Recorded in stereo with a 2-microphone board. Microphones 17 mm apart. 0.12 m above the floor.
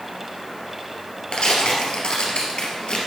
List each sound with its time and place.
1.3 s tearing paper: 55° left (ahead or behind), 2.5 m